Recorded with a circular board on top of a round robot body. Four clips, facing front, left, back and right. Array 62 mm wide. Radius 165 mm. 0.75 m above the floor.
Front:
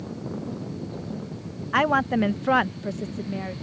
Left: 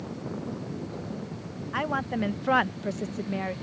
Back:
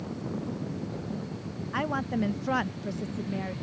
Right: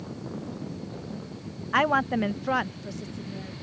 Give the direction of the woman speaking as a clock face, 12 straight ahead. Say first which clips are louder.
Right 6 dB, front 9 dB; 1 o'clock.